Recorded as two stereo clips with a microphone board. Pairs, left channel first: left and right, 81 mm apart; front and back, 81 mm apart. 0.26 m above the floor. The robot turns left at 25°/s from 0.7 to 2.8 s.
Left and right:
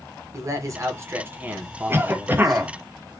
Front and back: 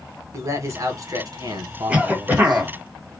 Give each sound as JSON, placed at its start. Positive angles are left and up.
{"t": 0.3, "sound": "a man speaking", "azimuth_deg": -135, "distance_m": 1.8}
{"t": 1.9, "sound": "a cough", "azimuth_deg": -120, "distance_m": 1.4}